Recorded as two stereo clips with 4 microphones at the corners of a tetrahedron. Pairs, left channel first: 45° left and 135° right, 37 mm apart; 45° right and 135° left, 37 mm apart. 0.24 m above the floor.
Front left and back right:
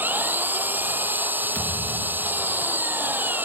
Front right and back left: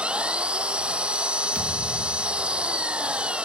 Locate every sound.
0.0 s an engine running: 165° right
1.6 s a thud: 90° left